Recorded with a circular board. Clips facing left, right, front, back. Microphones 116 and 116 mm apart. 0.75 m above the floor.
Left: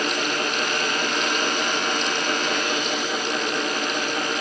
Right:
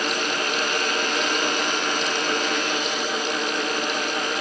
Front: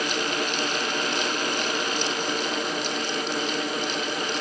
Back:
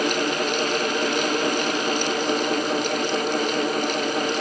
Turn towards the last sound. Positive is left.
No sound to turn to.